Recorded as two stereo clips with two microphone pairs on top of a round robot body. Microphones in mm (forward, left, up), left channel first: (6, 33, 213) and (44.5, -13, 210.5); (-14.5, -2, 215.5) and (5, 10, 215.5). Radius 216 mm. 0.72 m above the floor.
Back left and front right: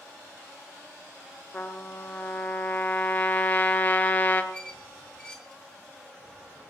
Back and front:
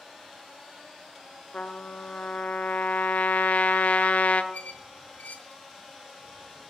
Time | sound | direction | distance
1.5 | a trumpet | 170° right | 1.1 m
4.5 | a squeak | 155° right | 1.2 m